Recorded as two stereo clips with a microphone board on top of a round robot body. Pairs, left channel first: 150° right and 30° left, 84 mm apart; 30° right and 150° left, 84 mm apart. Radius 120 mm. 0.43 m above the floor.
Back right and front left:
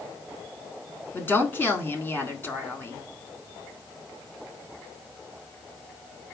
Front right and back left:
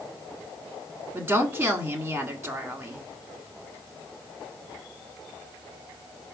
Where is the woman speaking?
Straight behind, 1.4 m.